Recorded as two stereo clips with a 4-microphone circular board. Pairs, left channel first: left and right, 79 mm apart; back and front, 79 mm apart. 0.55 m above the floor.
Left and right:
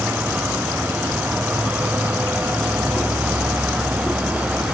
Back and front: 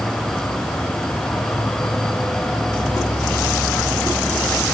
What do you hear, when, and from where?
0.0 s an insect: 135° right, 1.5 m